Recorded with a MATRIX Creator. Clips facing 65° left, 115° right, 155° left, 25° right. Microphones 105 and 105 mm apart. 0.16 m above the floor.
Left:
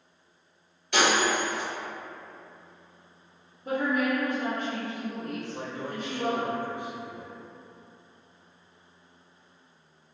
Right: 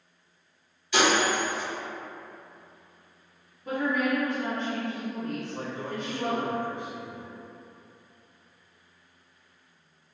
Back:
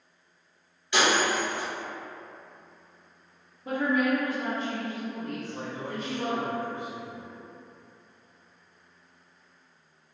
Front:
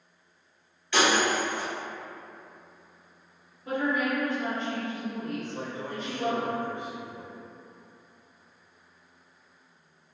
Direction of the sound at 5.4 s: 140° left.